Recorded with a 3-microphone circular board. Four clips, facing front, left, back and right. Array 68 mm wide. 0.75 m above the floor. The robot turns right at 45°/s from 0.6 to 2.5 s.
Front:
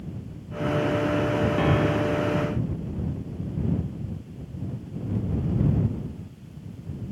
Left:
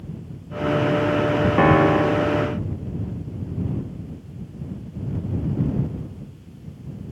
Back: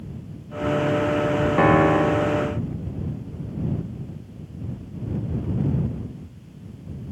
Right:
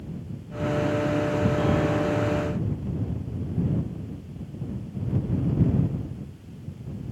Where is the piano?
125° left; by 2.5 s 165° left.